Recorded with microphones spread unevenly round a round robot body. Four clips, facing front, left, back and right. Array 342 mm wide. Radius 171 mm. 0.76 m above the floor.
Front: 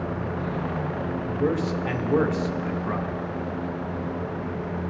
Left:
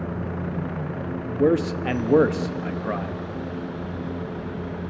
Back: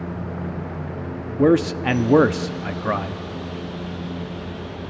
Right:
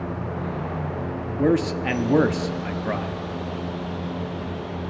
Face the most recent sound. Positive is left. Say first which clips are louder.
# even, back 9 dB
turn(degrees=-155)